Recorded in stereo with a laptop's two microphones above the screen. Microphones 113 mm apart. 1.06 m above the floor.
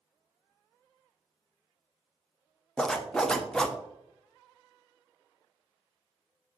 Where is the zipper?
5° left (ahead or behind), 0.5 m.